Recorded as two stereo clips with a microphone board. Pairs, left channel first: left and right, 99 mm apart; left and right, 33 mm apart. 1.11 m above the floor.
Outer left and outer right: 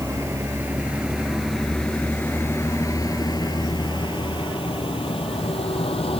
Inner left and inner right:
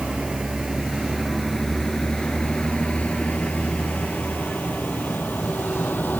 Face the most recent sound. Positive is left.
turn(degrees=70)  # may be behind; listen again after turning